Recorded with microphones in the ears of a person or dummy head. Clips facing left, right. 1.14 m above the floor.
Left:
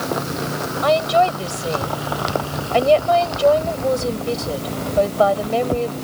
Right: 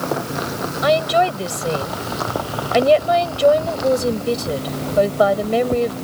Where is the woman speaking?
20° right (ahead or behind).